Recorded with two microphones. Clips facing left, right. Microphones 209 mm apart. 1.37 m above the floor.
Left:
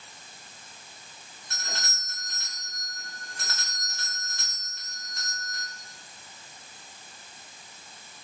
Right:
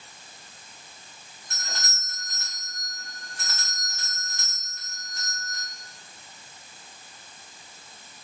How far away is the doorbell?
About 5 m.